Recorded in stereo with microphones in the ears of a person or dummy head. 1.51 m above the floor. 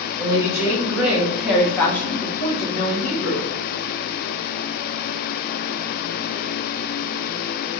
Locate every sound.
0.2 s a woman speaking: 20° right (ahead or behind), 1.7 m; by 3.5 s 55° left (ahead or behind), 0.8 m